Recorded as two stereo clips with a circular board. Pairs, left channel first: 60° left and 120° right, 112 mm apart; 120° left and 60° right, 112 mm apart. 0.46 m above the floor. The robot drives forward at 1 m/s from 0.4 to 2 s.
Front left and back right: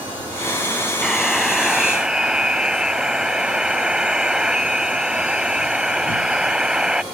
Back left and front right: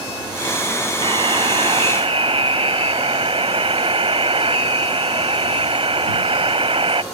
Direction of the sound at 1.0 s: 25° right.